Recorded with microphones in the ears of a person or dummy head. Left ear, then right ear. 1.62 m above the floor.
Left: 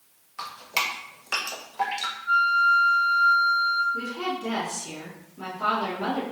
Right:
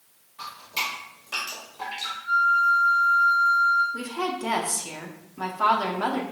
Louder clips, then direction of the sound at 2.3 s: Even; 5° left (ahead or behind).